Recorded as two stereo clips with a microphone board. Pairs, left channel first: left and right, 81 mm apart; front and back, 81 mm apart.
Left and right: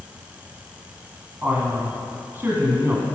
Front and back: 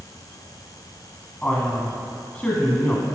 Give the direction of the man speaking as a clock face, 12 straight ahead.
2 o'clock.